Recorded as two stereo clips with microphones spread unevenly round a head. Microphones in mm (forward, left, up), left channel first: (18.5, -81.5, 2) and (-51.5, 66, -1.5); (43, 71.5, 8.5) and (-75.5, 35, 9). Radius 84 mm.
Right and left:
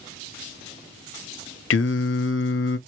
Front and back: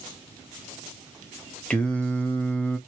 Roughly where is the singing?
Ahead right.